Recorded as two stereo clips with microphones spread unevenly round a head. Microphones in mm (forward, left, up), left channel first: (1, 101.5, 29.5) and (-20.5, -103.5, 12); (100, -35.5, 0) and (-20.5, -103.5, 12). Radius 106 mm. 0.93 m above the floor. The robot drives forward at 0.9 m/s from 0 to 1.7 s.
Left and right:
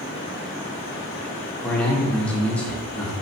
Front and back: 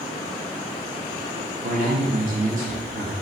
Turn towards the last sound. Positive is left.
turn(degrees=170)